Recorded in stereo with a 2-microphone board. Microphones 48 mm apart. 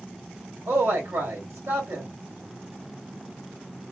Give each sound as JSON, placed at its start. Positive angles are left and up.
{"t": 0.7, "sound": "a man speaking", "side_deg": -60, "distance_m": 1.8}